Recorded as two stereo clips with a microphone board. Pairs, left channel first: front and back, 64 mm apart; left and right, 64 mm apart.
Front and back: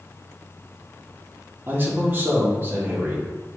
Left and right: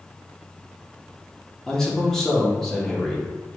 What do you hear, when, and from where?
1.7 s a man speaking: 165° left, 1.0 m